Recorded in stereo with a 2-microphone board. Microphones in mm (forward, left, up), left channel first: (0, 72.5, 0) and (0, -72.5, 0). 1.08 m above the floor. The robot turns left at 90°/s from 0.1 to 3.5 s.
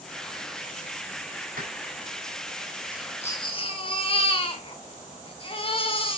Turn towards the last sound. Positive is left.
turn(degrees=140)